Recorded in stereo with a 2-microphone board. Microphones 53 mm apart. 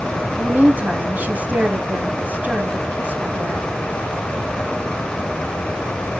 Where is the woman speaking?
30° right (ahead or behind), 1.1 m.